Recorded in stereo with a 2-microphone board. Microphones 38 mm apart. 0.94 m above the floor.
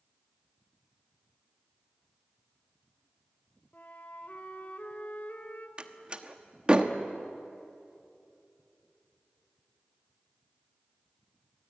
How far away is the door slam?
About 1.2 m.